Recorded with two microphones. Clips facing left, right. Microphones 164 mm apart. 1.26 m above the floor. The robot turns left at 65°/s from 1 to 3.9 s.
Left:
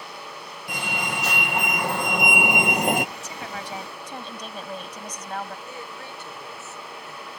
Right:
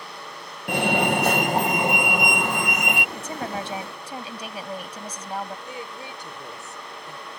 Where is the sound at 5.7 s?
15° right (ahead or behind).